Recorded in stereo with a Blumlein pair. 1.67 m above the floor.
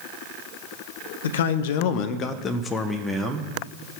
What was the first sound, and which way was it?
A man speaking, 65° left.